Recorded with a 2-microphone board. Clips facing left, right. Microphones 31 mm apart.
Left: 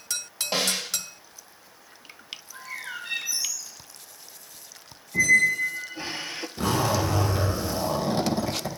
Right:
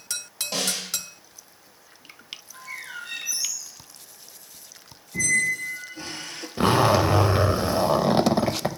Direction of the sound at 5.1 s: 20° left (ahead or behind).